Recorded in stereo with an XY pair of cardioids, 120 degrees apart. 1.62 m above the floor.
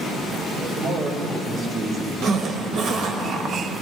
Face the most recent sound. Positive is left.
turn(degrees=-65)